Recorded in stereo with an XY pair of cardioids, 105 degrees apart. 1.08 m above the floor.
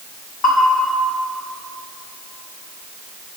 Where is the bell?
65° left, 5 m.